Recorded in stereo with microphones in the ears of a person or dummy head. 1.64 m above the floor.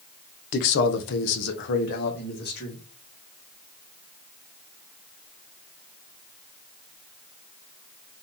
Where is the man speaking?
50° left (ahead or behind), 0.7 m.